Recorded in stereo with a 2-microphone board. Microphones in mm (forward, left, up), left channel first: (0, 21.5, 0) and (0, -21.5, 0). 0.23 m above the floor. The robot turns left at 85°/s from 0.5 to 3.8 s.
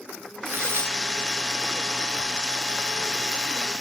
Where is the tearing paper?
65° right, 2 m; by 1.0 s 105° right, 2 m.